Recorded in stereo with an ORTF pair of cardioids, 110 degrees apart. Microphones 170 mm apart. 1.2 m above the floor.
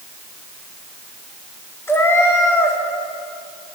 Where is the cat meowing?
15° left, 1.6 m.